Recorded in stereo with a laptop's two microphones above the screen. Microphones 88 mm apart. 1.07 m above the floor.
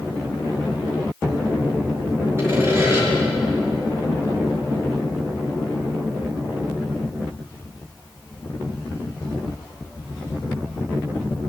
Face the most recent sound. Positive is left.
turn(degrees=-30)  # may be behind; listen again after turning